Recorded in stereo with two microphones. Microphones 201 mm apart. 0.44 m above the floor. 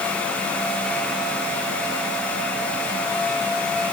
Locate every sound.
Only background noise.